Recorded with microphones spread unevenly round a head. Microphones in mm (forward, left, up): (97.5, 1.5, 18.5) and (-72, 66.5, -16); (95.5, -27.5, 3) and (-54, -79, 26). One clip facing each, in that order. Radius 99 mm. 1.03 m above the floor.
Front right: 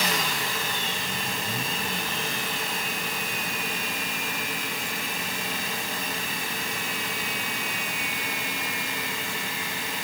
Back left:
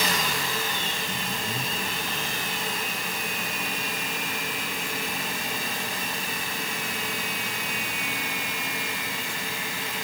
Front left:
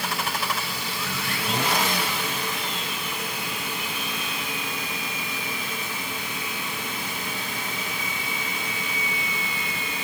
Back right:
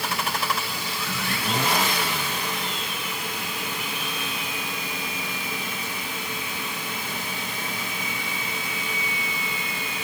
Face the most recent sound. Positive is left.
No sound to turn to.